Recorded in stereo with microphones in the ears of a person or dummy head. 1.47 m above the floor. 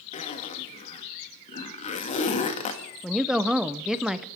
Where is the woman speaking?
Centre (ahead or behind), 0.6 m.